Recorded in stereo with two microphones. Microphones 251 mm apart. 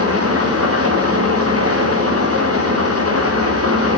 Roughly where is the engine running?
Right.